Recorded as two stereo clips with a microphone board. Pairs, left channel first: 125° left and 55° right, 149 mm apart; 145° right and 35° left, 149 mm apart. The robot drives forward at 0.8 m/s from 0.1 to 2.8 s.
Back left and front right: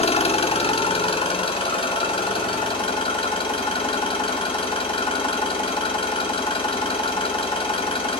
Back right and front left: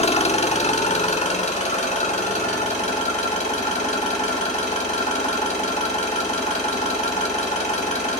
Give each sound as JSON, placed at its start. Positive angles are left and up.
{"t": 0.0, "sound": "an engine running", "azimuth_deg": 170, "distance_m": 1.1}